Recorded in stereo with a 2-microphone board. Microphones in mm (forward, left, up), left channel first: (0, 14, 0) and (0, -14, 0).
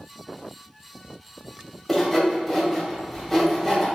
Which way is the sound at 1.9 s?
10° left (ahead or behind).